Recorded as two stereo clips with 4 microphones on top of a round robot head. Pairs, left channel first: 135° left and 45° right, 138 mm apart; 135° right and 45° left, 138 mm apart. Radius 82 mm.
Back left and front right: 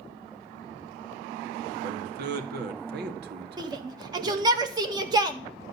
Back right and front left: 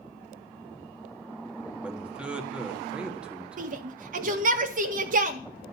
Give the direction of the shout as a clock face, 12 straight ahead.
11 o'clock.